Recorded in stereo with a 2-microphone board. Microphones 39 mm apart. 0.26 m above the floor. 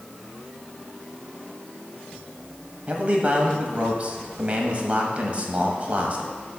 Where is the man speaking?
35° right (ahead or behind), 1.1 m.